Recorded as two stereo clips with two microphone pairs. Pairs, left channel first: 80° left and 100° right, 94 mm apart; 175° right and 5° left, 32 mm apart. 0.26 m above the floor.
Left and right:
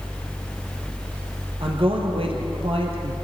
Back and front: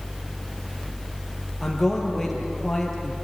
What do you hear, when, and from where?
1.6 s a man speaking: 90° right, 5.5 m; by 3.2 s 95° right, 5 m